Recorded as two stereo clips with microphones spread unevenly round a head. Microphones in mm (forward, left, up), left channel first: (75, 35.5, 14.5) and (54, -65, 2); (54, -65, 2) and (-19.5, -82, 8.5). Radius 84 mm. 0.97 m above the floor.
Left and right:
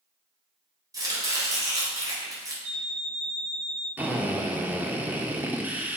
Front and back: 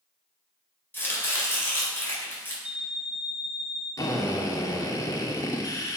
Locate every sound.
0.9 s chopping: 50° right, 4.5 m
2.6 s an alarm clock: 90° right, 3.5 m
4.0 s a drill: 30° right, 1.8 m